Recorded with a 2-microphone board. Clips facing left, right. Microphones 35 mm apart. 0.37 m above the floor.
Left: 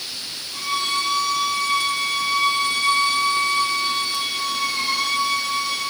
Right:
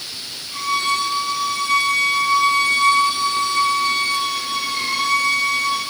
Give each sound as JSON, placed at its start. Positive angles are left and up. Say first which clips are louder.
{"t": 0.5, "sound": "a violin", "louder": "right 4 dB", "side_deg": -75, "distance_m": 2.5}